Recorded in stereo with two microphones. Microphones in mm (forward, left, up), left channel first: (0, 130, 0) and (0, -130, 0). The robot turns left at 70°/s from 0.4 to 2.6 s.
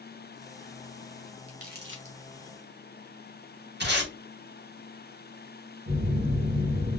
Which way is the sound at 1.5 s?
20° right (ahead or behind).